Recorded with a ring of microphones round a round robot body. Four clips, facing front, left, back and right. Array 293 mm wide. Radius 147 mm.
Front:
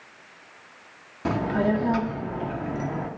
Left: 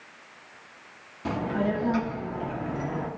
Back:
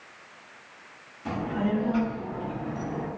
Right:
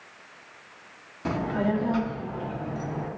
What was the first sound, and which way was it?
A child speaking, 10° right.